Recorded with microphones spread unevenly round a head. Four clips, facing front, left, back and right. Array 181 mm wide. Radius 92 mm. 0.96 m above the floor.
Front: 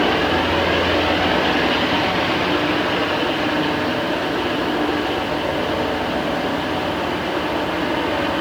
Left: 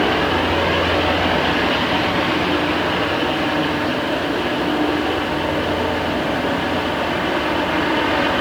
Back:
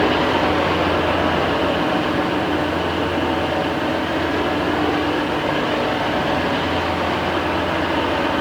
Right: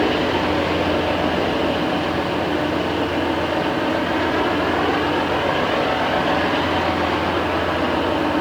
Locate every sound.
Only background noise.